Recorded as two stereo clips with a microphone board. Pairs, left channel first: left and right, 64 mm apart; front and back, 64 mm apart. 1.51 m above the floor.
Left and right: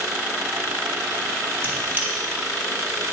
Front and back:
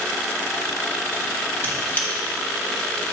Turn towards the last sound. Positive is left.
turn(degrees=-45)